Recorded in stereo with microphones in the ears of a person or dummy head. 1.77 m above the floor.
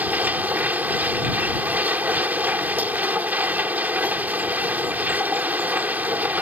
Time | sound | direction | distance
0.0 | a machine running | 10° right (ahead or behind) | ?